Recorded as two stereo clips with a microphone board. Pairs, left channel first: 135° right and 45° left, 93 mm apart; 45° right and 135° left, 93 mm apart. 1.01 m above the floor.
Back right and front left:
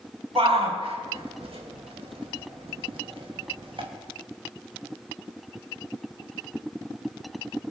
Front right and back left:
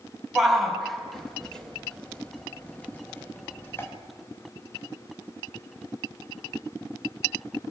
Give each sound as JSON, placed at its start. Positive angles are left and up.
{"t": 0.3, "sound": "a shout", "azimuth_deg": 50, "distance_m": 6.5}